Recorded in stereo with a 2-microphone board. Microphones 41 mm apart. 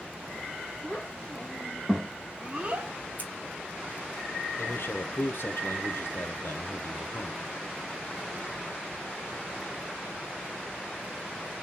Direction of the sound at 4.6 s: 60° left (ahead or behind).